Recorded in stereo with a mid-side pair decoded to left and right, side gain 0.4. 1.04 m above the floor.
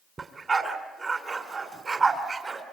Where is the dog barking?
35° right, 3 m.